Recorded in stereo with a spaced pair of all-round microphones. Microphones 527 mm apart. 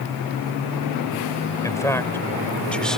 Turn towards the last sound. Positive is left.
turn(degrees=0)  # may be behind; listen again after turning